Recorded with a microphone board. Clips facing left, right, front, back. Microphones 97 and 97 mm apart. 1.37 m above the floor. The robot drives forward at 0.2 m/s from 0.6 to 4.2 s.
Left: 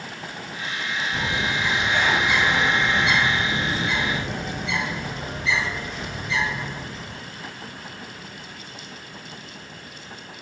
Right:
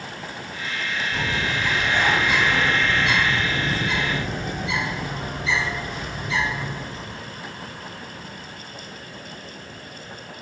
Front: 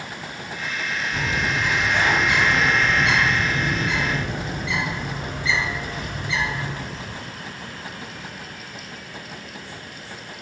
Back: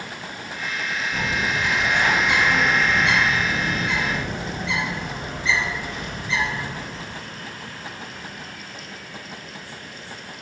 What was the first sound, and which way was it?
A bird, 110° right.